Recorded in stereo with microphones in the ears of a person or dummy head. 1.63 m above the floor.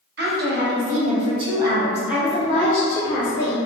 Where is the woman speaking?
60° right (ahead or behind), 1.1 m; by 3.6 s 25° left (ahead or behind), 1.3 m.